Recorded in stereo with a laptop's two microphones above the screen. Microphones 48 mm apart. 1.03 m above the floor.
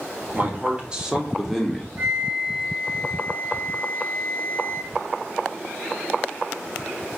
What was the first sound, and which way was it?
A man speaking, 35° right (ahead or behind).